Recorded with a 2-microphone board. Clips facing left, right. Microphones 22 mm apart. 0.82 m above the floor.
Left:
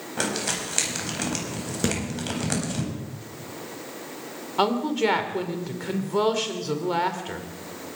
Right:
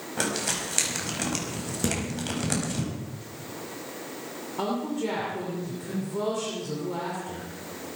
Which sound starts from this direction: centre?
Crumpling, at 0.2 s.